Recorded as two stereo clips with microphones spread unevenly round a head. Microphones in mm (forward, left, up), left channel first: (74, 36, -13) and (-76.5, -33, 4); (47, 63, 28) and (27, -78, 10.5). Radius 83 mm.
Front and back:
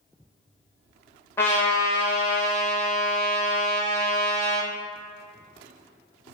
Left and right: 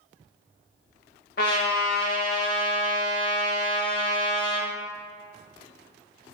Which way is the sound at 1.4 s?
105° left.